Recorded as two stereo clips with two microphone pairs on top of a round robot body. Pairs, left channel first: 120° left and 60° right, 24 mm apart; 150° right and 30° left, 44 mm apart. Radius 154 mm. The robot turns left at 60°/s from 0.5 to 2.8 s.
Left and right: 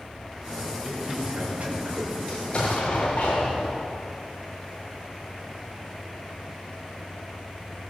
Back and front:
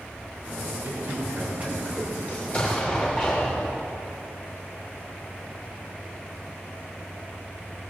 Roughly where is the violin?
I don't hear a violin.